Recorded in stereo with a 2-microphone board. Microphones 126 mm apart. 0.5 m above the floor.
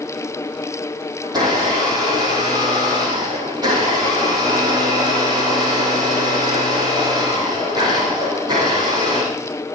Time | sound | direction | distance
1.2 | a blender | 35° right (ahead or behind) | 7 m